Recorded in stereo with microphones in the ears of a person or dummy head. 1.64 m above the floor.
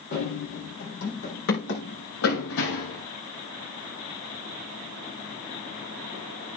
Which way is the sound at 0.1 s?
55° left (ahead or behind).